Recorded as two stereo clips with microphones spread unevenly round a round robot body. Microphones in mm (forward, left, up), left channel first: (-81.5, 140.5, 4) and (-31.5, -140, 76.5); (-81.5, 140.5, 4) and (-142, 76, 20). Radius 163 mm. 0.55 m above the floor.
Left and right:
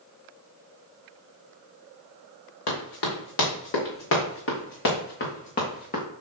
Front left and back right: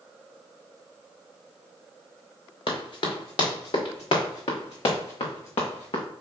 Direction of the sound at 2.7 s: 55° left.